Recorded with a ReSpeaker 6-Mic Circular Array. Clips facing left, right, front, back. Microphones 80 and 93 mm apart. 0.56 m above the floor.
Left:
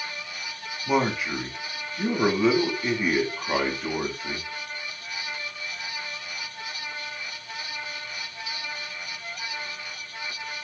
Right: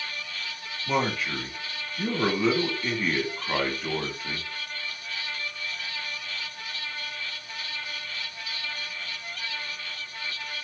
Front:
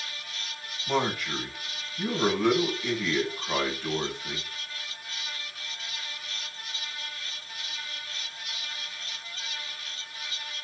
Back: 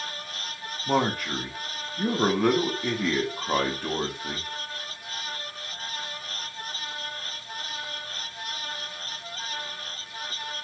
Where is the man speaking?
165° left, 0.9 m.